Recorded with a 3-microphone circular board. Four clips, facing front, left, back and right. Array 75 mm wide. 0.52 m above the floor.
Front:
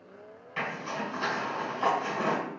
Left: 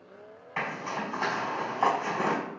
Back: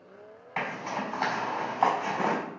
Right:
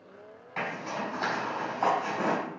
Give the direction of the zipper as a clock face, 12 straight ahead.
6 o'clock.